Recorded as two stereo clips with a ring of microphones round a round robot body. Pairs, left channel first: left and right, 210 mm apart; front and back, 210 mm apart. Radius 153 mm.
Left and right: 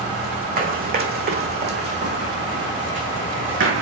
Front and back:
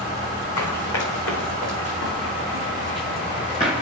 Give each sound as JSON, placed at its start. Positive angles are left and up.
{"t": 0.6, "sound": "running footsteps", "azimuth_deg": -45, "distance_m": 3.5}